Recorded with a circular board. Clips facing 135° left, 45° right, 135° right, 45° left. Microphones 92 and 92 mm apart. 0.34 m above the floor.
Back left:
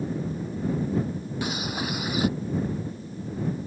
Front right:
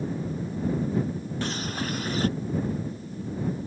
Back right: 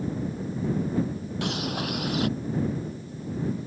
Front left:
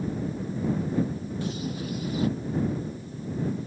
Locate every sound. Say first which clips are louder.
1.4 s a bird: back left 1 dB, back right 4 dB; 145° right